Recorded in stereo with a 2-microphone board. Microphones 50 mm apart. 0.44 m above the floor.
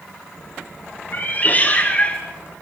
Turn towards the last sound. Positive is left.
turn(degrees=20)  # may be behind; listen again after turning